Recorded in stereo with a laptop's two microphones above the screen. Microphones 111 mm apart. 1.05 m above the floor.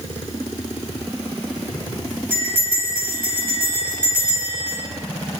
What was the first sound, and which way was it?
A bell, 20° right (ahead or behind).